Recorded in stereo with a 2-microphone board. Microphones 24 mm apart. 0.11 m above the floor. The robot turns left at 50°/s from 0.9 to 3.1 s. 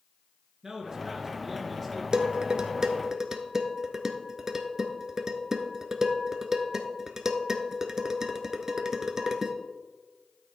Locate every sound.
0.6 s a man speaking: 130° right, 1.8 m; by 2.0 s 170° left, 1.8 m
2.1 s dishes clattering: 35° right (ahead or behind), 0.9 m; by 9.6 s 25° right (ahead or behind), 0.9 m